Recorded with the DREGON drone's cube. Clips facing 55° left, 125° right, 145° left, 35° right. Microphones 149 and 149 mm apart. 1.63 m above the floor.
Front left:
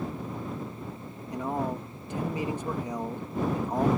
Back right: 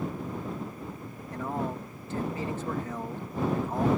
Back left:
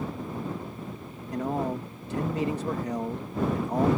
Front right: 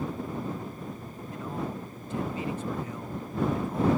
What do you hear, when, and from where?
1.3 s a man speaking: 130° left